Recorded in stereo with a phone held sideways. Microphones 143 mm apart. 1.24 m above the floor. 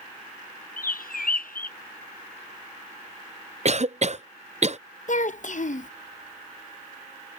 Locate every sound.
0.8 s a bird: 75° left (ahead or behind)
3.6 s a cough: 50° right (ahead or behind)
5.1 s a child speaking: 60° left (ahead or behind)